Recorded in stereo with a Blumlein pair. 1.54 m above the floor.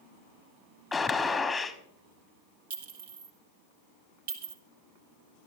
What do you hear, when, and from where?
0.9 s a gunshot: 10° left, 1.2 m
2.7 s a clink: 60° right, 1.8 m